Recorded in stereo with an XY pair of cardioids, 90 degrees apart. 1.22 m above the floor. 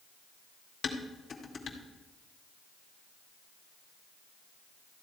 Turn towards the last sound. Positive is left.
turn(degrees=50)